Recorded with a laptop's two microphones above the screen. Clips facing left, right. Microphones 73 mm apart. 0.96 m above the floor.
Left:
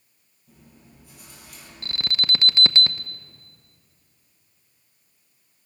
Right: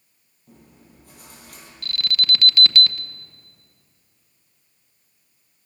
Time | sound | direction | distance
0.5 | chewing | 50° right (ahead or behind) | 8.5 m
1.8 | an alarm | 25° left (ahead or behind) | 0.9 m